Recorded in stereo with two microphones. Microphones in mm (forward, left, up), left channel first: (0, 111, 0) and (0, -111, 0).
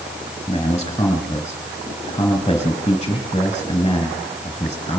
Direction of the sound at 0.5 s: 20° left (ahead or behind).